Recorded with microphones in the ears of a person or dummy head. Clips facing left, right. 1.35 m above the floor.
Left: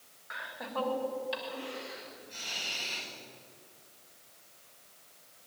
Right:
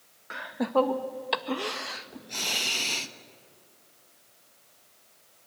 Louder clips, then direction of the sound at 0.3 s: Right 13 dB; 50° right (ahead or behind).